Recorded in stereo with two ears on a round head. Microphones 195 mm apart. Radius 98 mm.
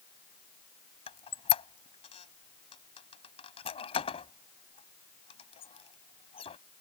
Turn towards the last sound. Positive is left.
turn(degrees=30)  # may be behind; listen again after turning